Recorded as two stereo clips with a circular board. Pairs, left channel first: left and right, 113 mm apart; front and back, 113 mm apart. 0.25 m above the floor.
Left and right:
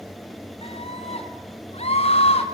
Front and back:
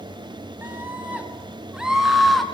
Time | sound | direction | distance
0.6 | a scream | 110° left | 3.5 m